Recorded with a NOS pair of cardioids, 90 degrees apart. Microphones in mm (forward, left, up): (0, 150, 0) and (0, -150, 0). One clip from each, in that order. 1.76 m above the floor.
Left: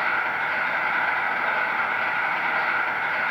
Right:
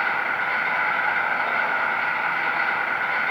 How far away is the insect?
About 0.8 m.